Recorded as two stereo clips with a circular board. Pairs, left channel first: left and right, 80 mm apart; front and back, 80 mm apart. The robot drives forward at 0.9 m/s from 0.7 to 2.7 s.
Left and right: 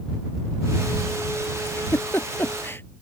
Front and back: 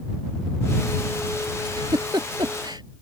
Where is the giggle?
150° left; by 2.8 s 155° left.